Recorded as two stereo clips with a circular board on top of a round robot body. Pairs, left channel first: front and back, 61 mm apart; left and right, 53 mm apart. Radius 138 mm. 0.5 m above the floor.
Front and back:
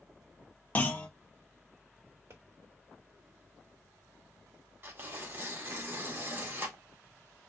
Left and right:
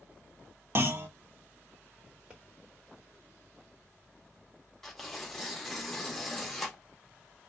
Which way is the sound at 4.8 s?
175° left.